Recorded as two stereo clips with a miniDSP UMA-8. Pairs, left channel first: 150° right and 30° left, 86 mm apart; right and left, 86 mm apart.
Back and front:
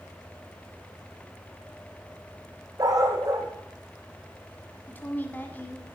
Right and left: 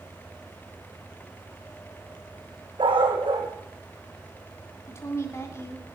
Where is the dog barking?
75° left, 3 m.